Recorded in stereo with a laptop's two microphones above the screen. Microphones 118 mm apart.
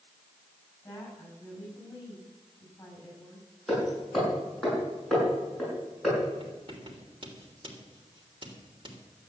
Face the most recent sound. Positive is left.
turn(degrees=-45)  # may be behind; listen again after turning